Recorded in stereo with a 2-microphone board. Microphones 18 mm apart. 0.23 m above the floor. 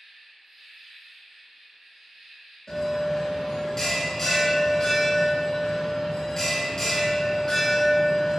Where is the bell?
25° left (ahead or behind), 0.6 m.